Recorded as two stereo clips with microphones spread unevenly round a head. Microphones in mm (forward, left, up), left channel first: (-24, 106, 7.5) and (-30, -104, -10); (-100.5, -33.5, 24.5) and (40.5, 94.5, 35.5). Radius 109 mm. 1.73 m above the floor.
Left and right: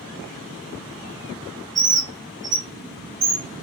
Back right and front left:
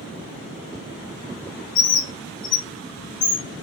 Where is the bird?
170° right, 3.5 m.